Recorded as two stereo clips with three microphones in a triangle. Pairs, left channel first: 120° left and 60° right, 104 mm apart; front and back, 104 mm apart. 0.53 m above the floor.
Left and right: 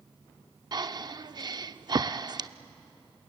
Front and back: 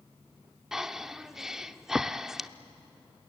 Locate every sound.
0.7 s breathing: 95° right, 0.5 m